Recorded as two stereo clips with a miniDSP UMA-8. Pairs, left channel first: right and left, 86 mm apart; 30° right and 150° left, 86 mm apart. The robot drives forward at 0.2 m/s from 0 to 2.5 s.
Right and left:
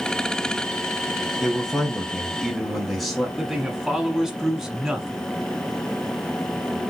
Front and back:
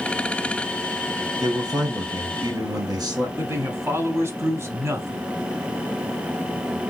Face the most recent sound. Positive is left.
turn(degrees=170)